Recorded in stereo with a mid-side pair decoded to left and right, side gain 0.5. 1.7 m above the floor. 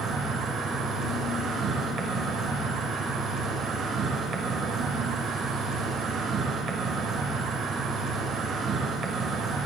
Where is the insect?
60° right, 1.4 m.